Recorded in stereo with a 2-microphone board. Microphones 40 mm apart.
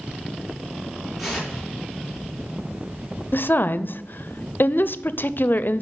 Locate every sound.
1.2 s tearing paper: 5° right (ahead or behind), 3.5 m
3.3 s a woman speaking: 55° left (ahead or behind), 0.5 m